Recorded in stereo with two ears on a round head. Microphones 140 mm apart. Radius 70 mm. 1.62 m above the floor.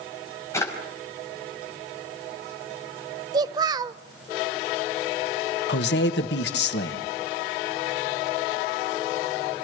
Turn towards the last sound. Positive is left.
turn(degrees=75)  # may be behind; listen again after turning